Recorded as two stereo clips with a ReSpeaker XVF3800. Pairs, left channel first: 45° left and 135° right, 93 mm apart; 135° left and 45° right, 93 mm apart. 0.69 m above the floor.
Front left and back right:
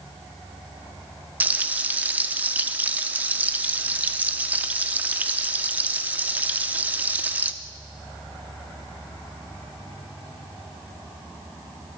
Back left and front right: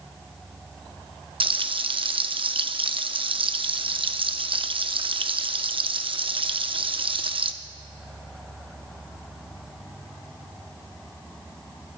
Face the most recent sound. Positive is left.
turn(degrees=-65)